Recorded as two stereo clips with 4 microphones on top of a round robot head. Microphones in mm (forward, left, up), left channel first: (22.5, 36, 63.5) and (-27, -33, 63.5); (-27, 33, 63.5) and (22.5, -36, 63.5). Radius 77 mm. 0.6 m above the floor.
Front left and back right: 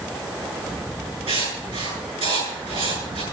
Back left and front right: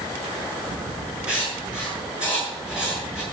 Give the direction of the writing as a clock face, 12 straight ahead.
4 o'clock.